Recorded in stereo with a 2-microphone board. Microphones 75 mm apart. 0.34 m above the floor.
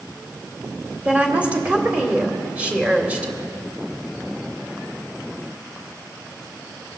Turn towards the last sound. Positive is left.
turn(degrees=-20)  # may be behind; listen again after turning